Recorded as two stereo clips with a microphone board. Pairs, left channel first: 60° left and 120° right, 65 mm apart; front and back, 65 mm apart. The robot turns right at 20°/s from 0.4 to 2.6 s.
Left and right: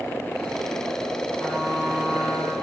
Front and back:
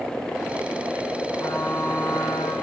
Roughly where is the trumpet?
Ahead.